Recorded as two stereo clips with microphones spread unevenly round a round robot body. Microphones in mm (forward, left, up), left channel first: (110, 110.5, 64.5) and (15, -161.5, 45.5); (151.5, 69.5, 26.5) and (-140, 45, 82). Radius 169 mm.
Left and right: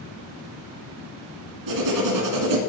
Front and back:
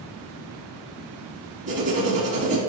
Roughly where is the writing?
Right.